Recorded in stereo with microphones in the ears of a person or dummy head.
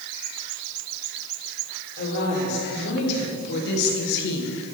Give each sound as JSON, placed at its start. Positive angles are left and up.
{"t": 2.0, "sound": "a woman speaking", "side_deg": 55, "distance_m": 5.5}